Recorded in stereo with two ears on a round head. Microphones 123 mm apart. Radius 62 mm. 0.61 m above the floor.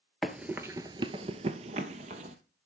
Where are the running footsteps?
Centre (ahead or behind), 0.7 m; by 2.4 s 55° right (ahead or behind), 1.2 m.